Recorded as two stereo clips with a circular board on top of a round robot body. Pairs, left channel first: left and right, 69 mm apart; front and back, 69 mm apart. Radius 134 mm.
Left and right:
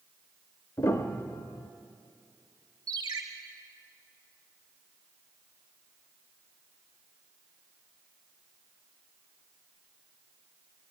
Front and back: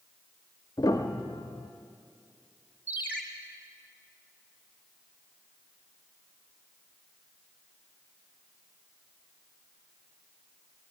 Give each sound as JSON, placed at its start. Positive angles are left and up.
{"t": 0.8, "sound": "a piano", "azimuth_deg": 45, "distance_m": 0.5}
{"t": 2.9, "sound": "a ringtone", "azimuth_deg": -115, "distance_m": 2.5}